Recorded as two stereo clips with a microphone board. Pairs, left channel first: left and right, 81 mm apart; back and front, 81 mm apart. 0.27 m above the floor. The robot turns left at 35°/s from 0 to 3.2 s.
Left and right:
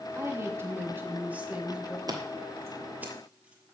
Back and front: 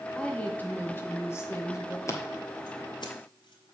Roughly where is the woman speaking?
Right.